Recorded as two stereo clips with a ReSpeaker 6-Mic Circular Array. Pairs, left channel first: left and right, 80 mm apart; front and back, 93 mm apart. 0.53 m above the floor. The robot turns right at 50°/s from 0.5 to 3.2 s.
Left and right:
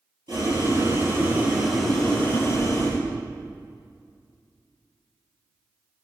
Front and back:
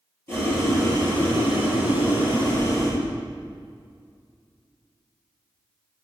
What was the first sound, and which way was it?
Boiling, 65° right.